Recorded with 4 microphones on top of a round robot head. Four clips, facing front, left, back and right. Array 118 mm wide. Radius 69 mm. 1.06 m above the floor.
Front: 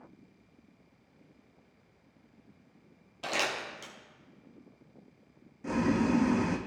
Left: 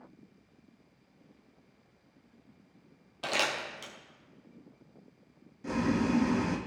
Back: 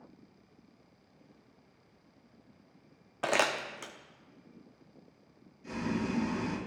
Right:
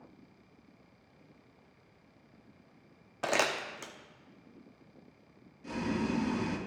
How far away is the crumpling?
About 0.7 m.